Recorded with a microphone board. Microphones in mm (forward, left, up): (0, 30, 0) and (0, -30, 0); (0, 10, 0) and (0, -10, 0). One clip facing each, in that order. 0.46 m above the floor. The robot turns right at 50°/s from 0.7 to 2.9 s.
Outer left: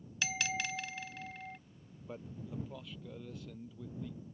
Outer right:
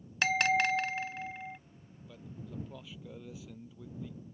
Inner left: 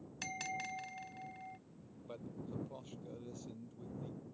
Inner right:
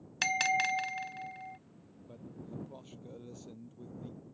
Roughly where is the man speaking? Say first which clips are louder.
Outer left 2 dB, even; behind left.